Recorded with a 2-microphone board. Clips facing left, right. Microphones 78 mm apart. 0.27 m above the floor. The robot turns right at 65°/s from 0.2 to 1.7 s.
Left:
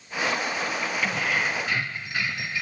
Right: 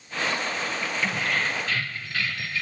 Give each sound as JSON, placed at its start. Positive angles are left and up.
{"t": 1.0, "sound": "keys jangling", "side_deg": -5, "distance_m": 0.6}